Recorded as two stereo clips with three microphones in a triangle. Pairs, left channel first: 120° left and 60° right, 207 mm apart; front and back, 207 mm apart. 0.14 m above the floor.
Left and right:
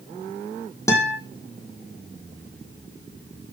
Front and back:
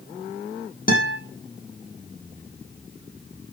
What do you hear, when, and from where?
0.9 s a guitar: 45° left, 6.5 m